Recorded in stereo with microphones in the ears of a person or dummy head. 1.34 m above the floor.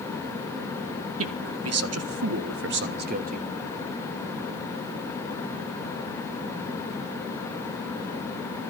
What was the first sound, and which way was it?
A man speaking, 75° right (ahead or behind).